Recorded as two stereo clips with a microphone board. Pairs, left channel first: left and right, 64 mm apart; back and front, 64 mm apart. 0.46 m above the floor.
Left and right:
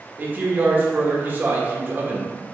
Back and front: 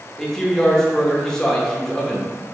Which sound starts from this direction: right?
A man speaking, at 0.2 s.